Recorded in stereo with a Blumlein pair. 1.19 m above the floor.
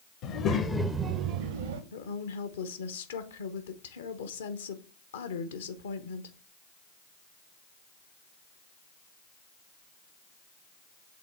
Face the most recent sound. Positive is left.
turn(degrees=60)